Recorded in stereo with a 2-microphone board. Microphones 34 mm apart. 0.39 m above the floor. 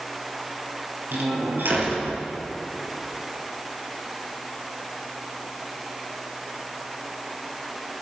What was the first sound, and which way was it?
A door slam, 80° right.